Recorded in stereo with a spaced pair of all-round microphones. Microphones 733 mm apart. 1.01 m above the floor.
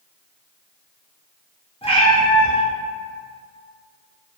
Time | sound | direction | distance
1.8 | a cat meowing | 10° left (ahead or behind) | 0.6 m